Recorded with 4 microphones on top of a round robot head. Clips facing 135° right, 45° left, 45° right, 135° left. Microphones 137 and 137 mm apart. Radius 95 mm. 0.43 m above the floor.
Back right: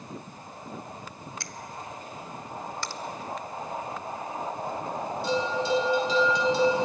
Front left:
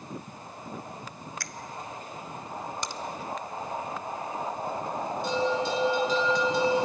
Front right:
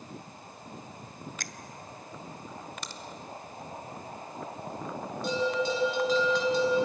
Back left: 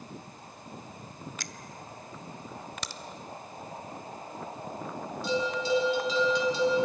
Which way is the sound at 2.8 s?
115° left.